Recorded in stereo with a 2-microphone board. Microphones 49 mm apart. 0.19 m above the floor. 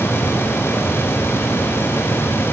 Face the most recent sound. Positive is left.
No sound to turn to.